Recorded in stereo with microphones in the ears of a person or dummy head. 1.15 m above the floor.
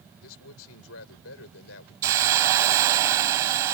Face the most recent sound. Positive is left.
turn(degrees=-15)  # may be behind; listen again after turning